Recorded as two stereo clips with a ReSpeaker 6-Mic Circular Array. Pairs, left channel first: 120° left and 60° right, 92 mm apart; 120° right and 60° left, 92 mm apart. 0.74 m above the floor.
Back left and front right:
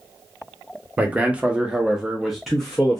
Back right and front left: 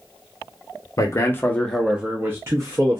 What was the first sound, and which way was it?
A man speaking, 120° right.